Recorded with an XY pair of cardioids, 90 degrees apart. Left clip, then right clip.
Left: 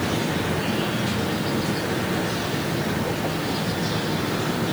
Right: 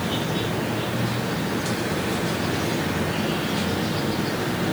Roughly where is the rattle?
I don't hear a rattle.